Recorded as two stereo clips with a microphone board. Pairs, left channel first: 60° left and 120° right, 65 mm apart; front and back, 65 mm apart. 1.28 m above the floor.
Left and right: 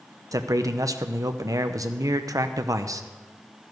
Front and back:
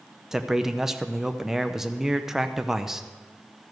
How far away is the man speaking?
About 0.7 m.